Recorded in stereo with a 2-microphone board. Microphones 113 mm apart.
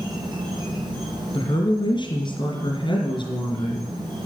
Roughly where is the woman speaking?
Left.